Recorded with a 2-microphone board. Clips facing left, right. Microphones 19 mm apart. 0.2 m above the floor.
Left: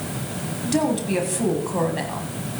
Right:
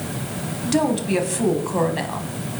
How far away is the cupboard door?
No cupboard door in this recording.